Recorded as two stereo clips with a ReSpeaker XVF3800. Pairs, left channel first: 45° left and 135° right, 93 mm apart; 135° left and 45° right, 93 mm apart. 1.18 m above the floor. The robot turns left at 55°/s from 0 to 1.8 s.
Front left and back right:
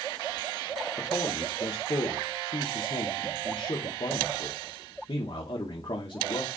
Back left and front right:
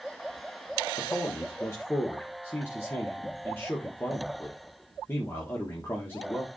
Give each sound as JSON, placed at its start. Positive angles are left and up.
{"t": 1.0, "sound": "a man speaking", "azimuth_deg": 115, "distance_m": 1.6}